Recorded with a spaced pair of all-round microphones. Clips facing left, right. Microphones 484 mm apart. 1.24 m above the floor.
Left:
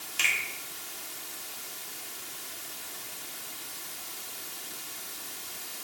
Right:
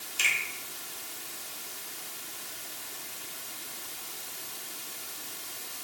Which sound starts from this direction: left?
A finger snap, at 0.2 s.